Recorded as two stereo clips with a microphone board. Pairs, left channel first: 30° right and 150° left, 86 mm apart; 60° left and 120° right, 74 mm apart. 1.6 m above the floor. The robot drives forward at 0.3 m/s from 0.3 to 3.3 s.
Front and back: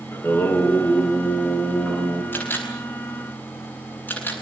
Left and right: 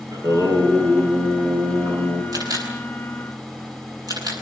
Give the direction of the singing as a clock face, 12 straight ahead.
3 o'clock.